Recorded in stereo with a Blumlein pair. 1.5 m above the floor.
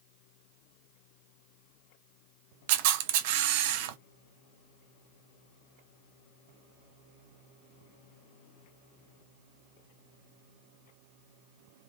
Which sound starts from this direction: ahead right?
A camera shutter, at 2.7 s.